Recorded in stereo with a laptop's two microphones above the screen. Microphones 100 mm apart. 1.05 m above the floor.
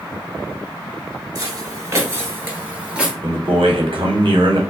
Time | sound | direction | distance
1.4 | footsteps | 40° right (ahead or behind) | 1.3 m
3.2 | a man speaking | 65° right (ahead or behind) | 1.1 m